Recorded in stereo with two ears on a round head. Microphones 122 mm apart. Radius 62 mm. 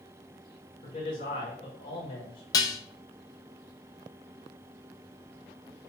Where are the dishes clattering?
25° left (ahead or behind), 0.9 m.